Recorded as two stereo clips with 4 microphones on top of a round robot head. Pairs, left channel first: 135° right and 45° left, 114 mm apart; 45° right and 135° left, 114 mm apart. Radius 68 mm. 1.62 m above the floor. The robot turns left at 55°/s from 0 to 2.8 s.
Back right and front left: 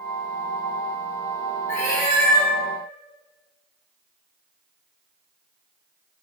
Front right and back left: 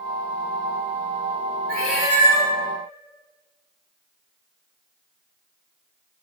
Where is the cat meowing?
115° right, 1.9 m; by 2.5 s 165° right, 1.9 m.